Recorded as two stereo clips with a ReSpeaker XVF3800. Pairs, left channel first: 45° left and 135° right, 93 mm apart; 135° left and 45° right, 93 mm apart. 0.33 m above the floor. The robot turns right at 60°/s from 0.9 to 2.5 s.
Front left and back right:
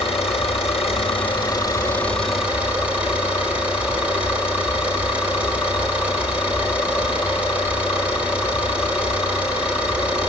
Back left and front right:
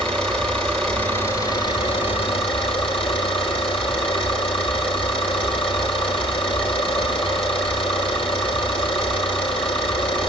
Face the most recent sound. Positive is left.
turn(degrees=150)